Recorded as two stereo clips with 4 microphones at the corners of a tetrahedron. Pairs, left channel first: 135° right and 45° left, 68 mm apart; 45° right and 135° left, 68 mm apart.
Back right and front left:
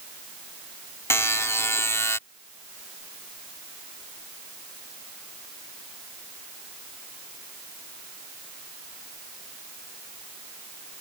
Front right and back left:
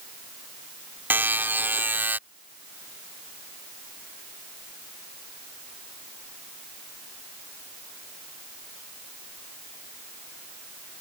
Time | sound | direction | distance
1.1 | a buzzer | 170° right | ?